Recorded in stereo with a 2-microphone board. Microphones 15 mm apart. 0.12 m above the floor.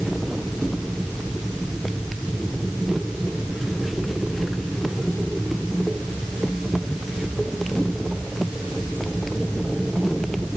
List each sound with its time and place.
Only background noise.